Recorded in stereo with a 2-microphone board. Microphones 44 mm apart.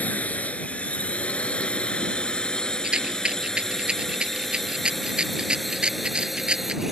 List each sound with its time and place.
0.0 s a drone: 35° left (ahead or behind); by 6.9 s 10° right (ahead or behind)
2.8 s a rattle: 20° right (ahead or behind)